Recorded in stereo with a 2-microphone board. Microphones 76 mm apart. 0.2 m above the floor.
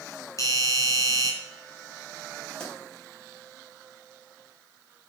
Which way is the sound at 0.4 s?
45° left (ahead or behind).